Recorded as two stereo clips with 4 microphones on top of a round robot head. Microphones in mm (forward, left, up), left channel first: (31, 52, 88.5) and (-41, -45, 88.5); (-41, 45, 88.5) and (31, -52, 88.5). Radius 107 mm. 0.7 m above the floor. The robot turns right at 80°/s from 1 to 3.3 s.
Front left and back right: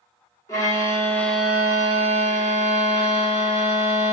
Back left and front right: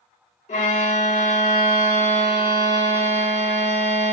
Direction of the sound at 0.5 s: 115° left.